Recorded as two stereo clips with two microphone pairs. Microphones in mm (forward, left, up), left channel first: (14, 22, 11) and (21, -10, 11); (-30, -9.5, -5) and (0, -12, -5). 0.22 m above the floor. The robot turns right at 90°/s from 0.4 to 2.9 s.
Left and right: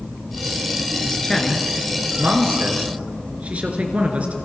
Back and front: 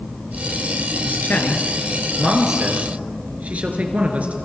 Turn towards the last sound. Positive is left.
turn(degrees=-35)